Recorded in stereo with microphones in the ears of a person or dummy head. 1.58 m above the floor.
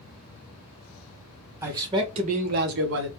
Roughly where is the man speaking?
Centre.